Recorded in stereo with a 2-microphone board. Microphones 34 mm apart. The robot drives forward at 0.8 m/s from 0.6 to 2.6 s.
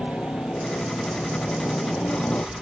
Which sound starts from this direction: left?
A helicopter, at 0.0 s.